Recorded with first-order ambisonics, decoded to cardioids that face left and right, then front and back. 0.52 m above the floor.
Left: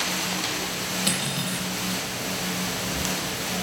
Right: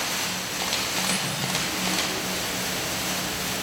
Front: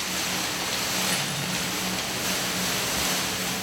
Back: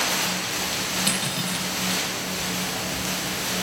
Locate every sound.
1.1 s cutlery clinking: 140° left, 10 m